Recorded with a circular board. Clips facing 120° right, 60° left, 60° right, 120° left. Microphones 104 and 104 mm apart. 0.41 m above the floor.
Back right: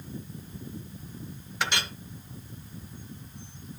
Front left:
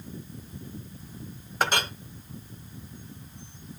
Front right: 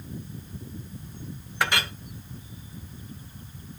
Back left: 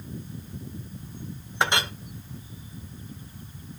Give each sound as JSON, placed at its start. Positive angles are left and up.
{"t": 1.6, "sound": "a clink", "azimuth_deg": 65, "distance_m": 0.8}